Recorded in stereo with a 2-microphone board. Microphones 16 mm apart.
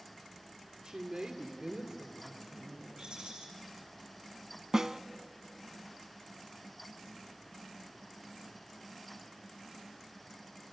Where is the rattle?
65° right (ahead or behind), 6.5 m.